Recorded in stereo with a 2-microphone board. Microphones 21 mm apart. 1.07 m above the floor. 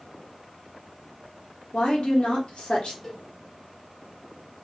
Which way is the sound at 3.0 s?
25° left (ahead or behind).